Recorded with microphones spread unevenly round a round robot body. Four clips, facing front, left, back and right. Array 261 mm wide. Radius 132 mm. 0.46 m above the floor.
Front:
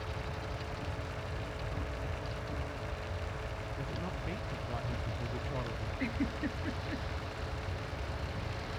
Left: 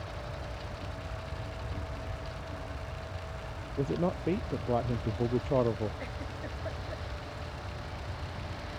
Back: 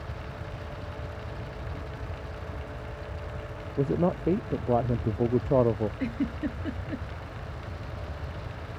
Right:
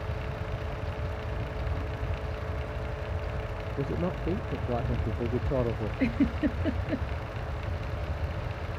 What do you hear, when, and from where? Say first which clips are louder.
3.8 s a man speaking: left 1 dB, back 18 dB; 175° left
6.0 s a giggle: right 14 dB, back 5 dB; 110° right